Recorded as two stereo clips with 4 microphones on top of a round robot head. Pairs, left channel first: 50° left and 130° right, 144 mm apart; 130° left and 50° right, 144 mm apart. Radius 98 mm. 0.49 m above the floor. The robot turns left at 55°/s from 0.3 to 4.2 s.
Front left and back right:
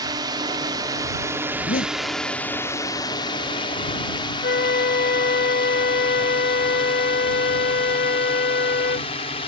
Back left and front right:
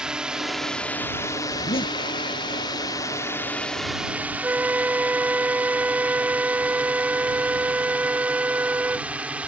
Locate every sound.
0.0 s a drone: 125° right; by 9.5 s 30° left
1.5 s a zipper: 90° left; by 2.0 s 65° left
4.4 s a flute: 30° left